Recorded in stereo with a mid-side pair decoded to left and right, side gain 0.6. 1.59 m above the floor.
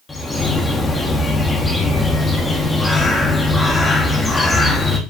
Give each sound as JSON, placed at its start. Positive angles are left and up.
{"t": 0.1, "sound": "a bird", "azimuth_deg": 20, "distance_m": 2.0}